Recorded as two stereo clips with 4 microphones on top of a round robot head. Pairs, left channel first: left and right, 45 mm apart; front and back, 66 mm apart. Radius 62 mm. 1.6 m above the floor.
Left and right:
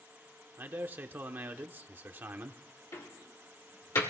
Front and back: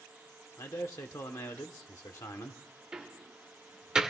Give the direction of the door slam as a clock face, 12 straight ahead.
9 o'clock.